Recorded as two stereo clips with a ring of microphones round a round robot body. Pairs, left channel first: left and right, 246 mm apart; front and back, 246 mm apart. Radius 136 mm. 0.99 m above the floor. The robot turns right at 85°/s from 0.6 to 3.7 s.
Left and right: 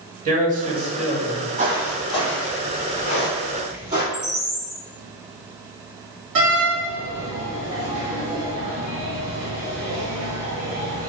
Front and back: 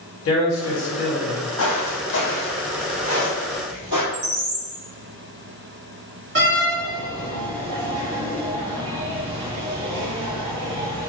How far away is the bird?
About 1.4 m.